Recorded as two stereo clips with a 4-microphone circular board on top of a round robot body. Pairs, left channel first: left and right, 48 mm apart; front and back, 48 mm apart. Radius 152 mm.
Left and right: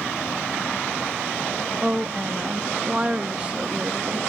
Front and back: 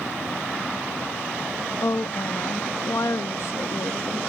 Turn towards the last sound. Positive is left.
turn(degrees=-20)